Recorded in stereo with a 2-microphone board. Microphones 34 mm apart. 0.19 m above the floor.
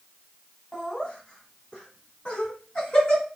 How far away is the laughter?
About 1.4 m.